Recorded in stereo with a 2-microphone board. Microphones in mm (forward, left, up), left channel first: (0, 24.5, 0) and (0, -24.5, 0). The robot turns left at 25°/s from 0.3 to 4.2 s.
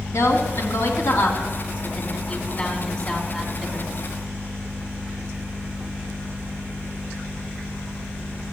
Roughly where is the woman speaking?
Left.